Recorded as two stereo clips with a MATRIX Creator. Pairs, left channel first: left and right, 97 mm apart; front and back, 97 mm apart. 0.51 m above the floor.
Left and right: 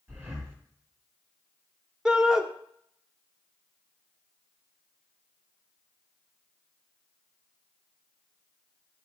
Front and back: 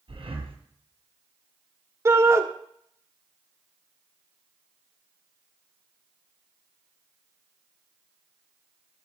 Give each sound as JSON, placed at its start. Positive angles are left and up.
{"t": 0.1, "sound": "breathing", "azimuth_deg": -155, "distance_m": 3.0}
{"t": 2.0, "sound": "a shout", "azimuth_deg": -165, "distance_m": 1.1}